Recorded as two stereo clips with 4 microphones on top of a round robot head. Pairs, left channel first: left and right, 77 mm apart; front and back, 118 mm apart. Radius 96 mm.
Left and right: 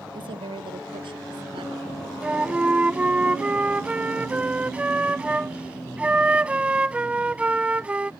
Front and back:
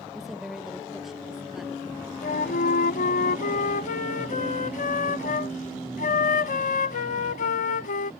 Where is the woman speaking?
90° right.